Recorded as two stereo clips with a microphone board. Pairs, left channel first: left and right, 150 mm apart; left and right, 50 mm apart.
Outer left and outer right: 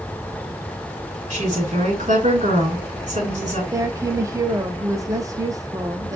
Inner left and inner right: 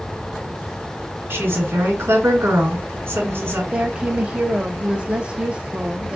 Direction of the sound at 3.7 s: 20° right (ahead or behind).